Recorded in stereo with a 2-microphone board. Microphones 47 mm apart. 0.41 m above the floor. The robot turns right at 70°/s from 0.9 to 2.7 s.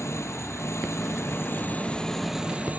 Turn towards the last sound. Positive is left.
turn(degrees=-150)